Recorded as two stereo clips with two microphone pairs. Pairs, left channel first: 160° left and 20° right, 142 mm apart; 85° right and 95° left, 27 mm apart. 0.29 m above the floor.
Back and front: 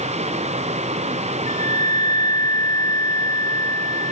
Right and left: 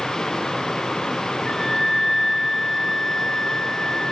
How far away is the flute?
About 0.6 m.